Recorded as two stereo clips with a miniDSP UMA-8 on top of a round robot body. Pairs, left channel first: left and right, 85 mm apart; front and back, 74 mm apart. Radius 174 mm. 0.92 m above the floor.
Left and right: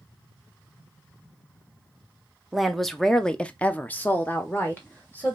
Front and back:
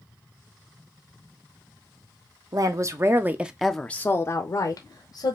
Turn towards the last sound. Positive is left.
turn(degrees=20)